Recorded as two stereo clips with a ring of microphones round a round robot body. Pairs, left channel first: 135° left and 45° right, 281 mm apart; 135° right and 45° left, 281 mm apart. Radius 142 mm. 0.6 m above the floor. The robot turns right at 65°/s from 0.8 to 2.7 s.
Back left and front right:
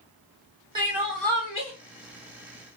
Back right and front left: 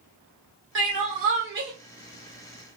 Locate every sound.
0.8 s crying: 25° left, 1.3 m; by 1.7 s 85° left, 1.3 m